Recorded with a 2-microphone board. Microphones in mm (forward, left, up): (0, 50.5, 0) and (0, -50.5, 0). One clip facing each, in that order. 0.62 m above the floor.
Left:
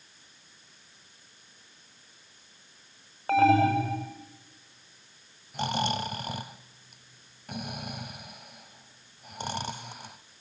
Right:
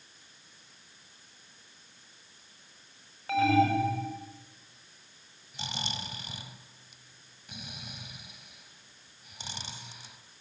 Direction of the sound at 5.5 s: 55° left (ahead or behind).